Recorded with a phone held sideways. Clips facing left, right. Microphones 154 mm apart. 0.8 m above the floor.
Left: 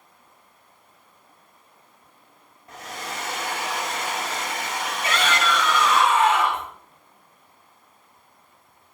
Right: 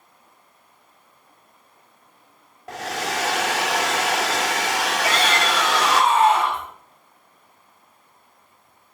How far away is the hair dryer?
About 1.0 m.